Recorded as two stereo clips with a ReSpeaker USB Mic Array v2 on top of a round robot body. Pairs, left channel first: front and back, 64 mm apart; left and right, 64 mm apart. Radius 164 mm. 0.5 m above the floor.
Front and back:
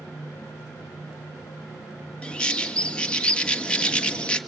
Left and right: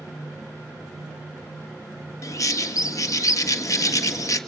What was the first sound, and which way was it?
A bird, 70° left.